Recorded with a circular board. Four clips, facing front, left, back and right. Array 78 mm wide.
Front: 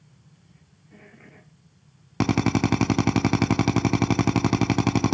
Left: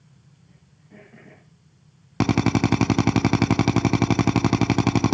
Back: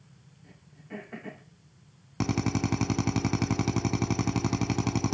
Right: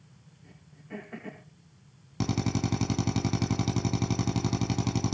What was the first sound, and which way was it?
Throat clearing, 140° right.